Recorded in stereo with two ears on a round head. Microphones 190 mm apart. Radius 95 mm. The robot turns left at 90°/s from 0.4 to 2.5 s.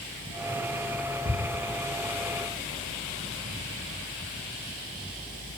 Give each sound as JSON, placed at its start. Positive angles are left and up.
{"t": 1.2, "sound": "ticking", "side_deg": -30, "distance_m": 0.6}